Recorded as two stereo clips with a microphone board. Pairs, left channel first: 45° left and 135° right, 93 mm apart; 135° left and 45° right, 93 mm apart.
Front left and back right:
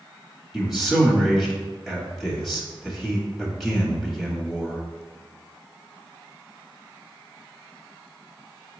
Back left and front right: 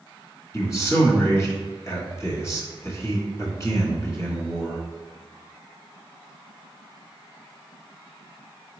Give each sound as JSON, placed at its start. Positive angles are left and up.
{"t": 0.5, "sound": "a man speaking", "azimuth_deg": 135, "distance_m": 1.2}